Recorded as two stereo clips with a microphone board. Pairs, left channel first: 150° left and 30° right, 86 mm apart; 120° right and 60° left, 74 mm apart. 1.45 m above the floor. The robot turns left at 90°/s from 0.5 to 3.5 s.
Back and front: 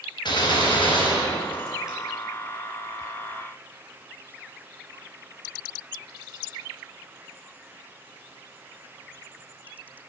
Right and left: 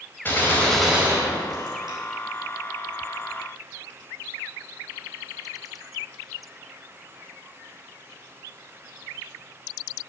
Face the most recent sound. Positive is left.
turn(degrees=-95)